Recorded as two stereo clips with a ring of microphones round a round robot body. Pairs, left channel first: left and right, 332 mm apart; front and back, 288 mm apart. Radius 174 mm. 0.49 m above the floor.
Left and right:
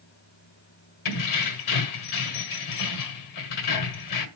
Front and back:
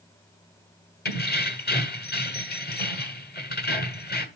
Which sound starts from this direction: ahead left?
Keys jangling, at 1.1 s.